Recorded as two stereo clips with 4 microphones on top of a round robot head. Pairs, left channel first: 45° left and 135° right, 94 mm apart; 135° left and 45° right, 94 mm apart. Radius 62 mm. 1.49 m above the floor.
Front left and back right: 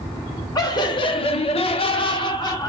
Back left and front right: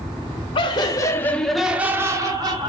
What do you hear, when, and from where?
0.6 s laughter: 100° left, 0.9 m; by 2.7 s straight ahead, 1.2 m